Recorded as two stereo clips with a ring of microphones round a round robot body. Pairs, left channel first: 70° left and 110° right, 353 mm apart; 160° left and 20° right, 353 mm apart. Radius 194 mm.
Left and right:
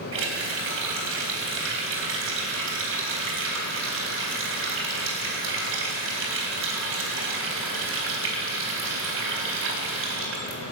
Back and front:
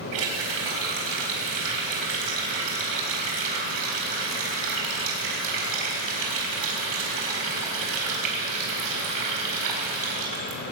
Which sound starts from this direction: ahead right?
A running tap, at 0.1 s.